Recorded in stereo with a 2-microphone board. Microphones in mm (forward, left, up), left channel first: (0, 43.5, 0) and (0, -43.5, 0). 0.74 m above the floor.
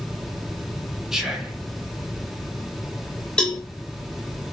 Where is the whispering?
5° right (ahead or behind), 1.0 m.